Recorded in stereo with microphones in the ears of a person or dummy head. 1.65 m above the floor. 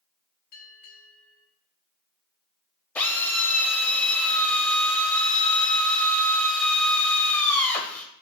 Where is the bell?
45° left (ahead or behind), 1.7 m.